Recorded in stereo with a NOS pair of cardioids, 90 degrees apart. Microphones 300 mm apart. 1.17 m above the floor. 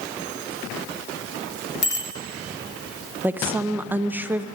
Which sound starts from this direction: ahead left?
A bicycle bell, at 1.8 s.